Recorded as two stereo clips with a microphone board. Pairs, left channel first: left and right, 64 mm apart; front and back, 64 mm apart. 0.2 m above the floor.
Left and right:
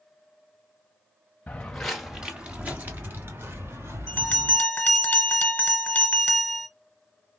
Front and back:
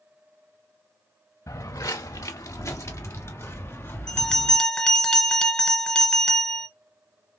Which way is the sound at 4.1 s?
65° left.